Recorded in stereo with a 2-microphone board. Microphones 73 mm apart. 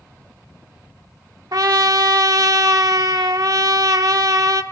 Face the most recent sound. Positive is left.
turn(degrees=-65)  # may be behind; listen again after turning